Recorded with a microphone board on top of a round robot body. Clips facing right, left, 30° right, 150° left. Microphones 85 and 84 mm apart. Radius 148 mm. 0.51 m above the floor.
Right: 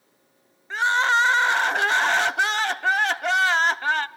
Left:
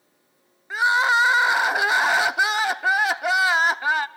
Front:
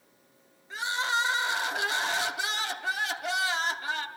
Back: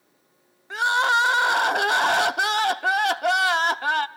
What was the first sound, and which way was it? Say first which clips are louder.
Crying: left 1 dB, back 9 dB; 170° left.